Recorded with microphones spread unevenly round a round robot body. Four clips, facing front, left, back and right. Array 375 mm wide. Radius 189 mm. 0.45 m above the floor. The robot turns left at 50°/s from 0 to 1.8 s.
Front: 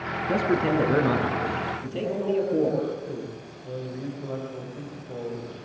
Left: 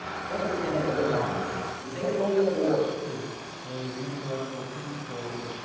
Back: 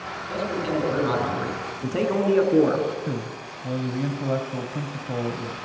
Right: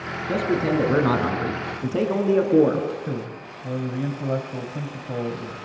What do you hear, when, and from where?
0.3 s a man speaking: 40° right, 5.5 m; by 2.9 s 115° right, 5.5 m
3.1 s a man speaking: 140° right, 3 m